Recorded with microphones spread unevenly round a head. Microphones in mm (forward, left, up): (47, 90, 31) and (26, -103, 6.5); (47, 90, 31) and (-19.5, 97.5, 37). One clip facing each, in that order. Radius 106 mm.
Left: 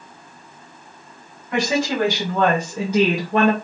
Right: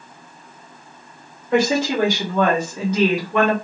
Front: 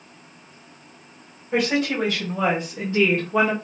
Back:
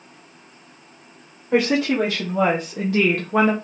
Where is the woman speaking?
165° right, 1.3 m; by 3.5 s 130° left, 0.7 m.